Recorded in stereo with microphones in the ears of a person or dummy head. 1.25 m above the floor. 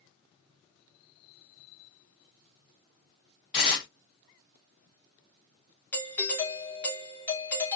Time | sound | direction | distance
3.5 | tearing paper | 20° left (ahead or behind) | 0.5 m
5.9 | a doorbell | 10° left (ahead or behind) | 1.1 m